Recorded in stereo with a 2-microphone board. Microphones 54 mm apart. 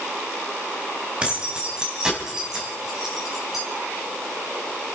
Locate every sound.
1.2 s keys jangling: 20° right (ahead or behind), 3.5 m; by 3.6 s 5° right (ahead or behind), 5 m